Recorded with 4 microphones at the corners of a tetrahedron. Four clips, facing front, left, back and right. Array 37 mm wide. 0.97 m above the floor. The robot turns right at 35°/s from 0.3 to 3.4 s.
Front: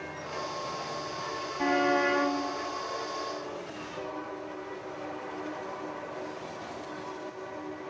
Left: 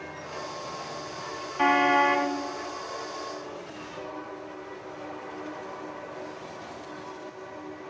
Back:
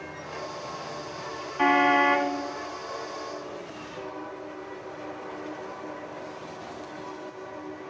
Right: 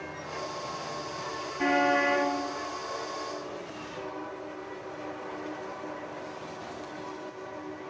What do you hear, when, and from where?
1.6 s a car horn: 135° left, 3 m; by 2.3 s 160° left, 3 m